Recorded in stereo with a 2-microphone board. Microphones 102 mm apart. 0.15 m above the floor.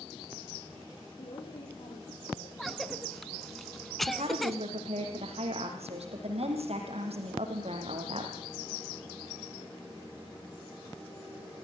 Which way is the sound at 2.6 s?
Centre (ahead or behind).